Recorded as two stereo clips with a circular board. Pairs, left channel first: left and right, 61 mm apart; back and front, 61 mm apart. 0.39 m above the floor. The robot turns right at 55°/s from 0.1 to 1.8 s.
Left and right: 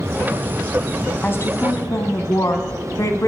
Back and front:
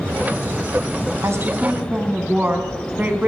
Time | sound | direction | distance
1.2 | a woman speaking | 30° left | 3.5 m